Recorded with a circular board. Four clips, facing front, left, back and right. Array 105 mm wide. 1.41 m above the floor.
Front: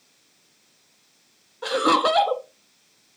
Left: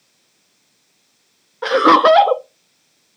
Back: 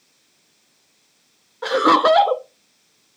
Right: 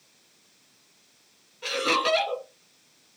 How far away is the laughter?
About 0.6 m.